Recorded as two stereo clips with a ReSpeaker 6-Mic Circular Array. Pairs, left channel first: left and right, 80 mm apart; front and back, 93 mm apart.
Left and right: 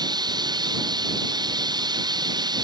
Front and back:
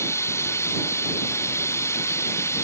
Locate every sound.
0.0 s running water: 60° right